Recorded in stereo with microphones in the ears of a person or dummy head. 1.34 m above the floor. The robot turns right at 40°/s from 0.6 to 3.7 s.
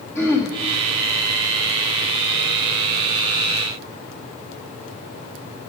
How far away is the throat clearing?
About 1.4 m.